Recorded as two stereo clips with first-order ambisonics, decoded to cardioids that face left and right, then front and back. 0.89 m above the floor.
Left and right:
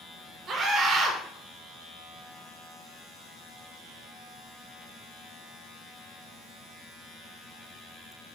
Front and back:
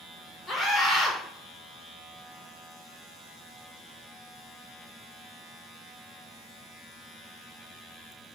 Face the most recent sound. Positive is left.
turn(degrees=-60)